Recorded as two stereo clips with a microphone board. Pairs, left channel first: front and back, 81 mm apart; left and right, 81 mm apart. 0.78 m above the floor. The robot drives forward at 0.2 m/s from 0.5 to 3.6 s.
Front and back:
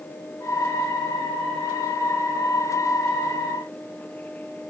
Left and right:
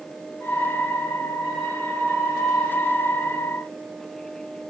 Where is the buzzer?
No buzzer in this recording.